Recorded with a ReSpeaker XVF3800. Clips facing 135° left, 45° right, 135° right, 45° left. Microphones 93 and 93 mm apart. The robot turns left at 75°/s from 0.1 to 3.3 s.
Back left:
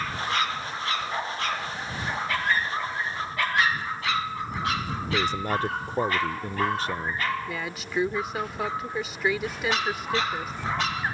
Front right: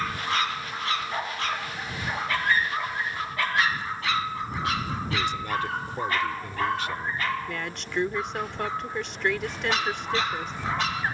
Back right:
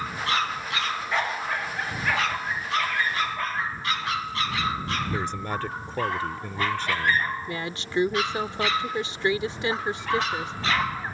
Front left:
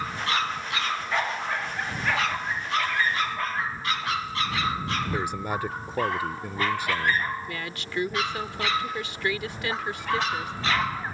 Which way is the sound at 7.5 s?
145° right.